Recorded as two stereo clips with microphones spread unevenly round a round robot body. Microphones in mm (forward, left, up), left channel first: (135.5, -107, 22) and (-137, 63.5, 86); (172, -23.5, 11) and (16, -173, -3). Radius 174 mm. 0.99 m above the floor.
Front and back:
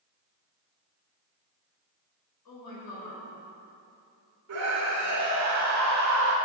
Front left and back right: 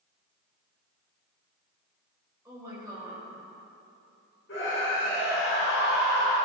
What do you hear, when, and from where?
2.5 s a woman speaking: 60° right, 5 m
4.5 s a scream: 105° left, 3 m